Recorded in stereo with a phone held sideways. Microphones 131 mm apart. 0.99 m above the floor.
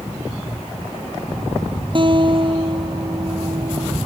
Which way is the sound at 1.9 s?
40° right (ahead or behind).